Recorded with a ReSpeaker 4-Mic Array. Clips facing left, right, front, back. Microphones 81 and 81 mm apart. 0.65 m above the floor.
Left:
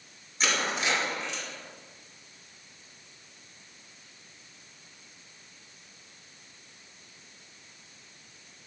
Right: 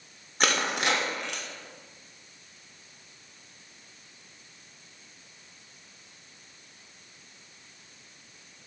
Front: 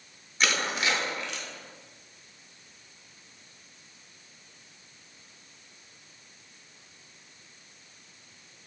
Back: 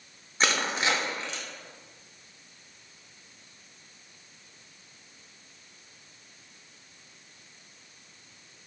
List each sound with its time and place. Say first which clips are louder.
0.4 s crushing: right 2 dB, back 1 dB; 120° right, 0.5 m